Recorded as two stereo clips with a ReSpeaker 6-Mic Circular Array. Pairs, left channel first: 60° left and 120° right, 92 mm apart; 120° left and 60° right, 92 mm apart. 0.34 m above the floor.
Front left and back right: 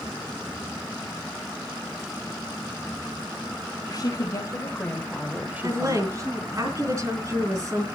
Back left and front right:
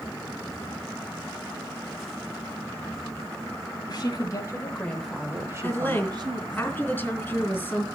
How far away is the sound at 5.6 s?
About 4 m.